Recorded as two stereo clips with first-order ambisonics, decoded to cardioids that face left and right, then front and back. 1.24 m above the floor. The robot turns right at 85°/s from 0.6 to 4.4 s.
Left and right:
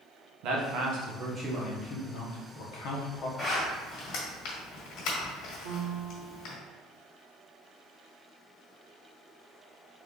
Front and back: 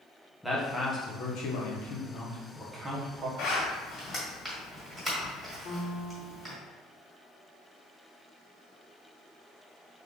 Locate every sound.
0.4 s a man speaking: 90° right, 1.1 m; by 3.3 s 140° left, 1.1 m
3.4 s a zipper: 15° left, 1.6 m; by 6.5 s 100° left, 1.6 m
5.6 s a piano: 85° right, 1.3 m